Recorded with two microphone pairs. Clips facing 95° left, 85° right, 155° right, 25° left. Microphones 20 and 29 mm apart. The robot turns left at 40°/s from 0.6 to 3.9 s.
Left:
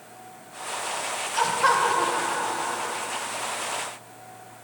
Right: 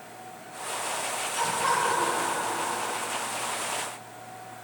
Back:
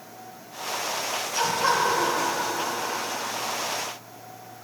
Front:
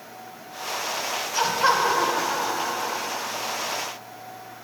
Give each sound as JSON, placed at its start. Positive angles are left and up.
{"t": 1.3, "sound": "laughter", "azimuth_deg": 90, "distance_m": 1.4}